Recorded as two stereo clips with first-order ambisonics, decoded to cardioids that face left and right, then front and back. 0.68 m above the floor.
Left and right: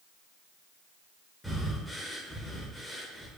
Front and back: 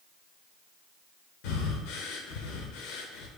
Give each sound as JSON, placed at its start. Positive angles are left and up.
{"t": 1.4, "sound": "breathing", "azimuth_deg": 0, "distance_m": 0.7}